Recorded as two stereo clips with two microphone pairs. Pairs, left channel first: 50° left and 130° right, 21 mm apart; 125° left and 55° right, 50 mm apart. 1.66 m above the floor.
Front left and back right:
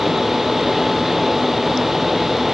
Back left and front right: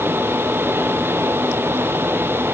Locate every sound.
Only background noise.